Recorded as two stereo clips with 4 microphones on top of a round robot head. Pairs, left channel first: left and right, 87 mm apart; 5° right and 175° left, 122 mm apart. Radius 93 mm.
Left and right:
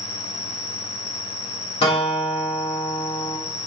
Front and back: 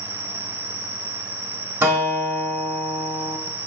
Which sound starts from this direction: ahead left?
An insect, at 0.0 s.